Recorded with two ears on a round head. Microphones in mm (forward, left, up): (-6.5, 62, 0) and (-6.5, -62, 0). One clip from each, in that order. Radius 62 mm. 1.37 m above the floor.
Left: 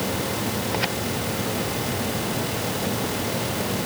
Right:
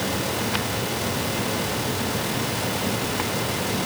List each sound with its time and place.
Only background noise.